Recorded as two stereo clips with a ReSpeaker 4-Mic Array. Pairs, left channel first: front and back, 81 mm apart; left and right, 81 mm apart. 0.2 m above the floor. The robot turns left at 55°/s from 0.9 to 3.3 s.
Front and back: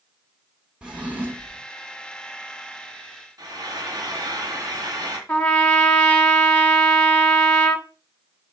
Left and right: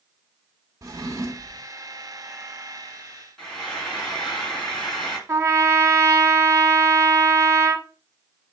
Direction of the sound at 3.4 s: 170° left.